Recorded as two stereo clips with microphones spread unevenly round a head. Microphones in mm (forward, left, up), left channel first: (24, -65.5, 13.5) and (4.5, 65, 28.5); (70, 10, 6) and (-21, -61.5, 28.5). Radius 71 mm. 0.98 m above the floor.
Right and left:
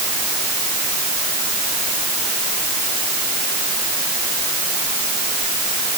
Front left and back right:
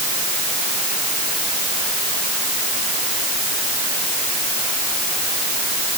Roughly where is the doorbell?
I don't hear a doorbell.